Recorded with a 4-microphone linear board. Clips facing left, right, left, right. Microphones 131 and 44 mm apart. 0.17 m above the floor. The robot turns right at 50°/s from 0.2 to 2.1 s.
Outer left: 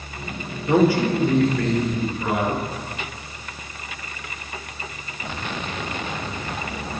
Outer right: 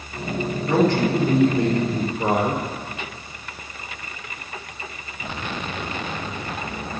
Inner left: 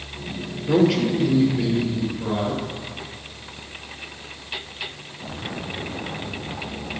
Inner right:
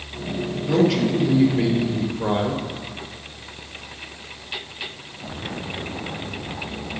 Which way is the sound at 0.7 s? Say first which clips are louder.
Outer left 2 dB, inner left 1 dB; 160° left.